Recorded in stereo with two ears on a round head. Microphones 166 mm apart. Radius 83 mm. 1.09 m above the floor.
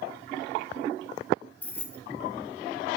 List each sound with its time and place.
1.6 s keys jangling: 10° left (ahead or behind), 1.4 m